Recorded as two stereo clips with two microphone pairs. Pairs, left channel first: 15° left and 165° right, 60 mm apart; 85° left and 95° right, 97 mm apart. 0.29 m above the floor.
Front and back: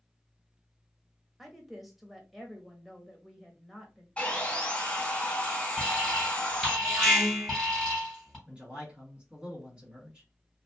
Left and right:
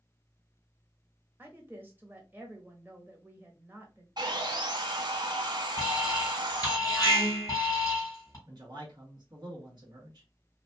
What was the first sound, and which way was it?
A woman speaking, 80° right.